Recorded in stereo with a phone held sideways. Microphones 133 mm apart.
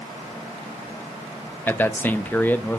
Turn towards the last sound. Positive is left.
turn(degrees=15)  # may be behind; listen again after turning